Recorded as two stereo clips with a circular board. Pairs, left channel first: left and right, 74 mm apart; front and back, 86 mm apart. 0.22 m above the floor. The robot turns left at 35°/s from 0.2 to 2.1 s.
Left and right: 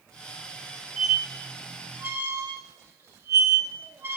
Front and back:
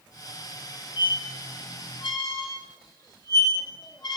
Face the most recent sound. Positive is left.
turn(degrees=-35)